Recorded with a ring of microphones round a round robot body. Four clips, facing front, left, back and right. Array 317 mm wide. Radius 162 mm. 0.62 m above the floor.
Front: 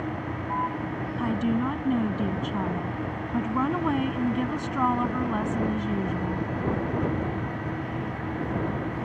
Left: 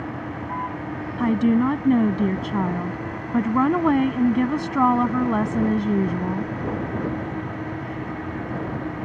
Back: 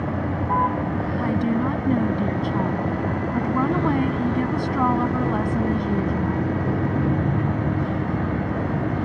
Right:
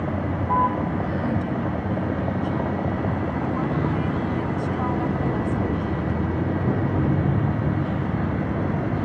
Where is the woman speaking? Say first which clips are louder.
Left 6 dB, back 2 dB; 100° left.